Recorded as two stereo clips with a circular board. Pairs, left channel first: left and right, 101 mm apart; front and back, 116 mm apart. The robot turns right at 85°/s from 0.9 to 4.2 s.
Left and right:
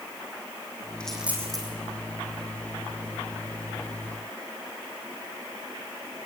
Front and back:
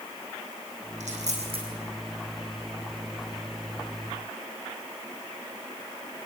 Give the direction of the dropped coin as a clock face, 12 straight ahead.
6 o'clock.